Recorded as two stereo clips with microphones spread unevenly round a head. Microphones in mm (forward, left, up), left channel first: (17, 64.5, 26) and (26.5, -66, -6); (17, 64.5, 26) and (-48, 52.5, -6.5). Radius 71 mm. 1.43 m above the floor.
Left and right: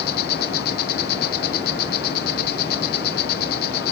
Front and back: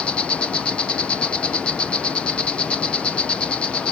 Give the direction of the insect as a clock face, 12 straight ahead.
9 o'clock.